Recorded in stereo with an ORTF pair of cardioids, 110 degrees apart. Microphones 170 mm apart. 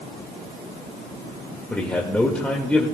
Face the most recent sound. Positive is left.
turn(degrees=10)